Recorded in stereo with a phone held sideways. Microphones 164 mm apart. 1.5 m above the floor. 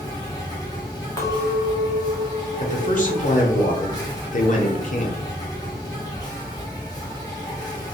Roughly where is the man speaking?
Left.